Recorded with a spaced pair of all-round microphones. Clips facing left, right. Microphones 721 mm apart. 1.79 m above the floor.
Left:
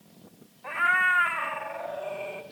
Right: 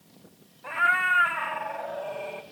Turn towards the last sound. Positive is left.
turn(degrees=-65)  # may be behind; listen again after turning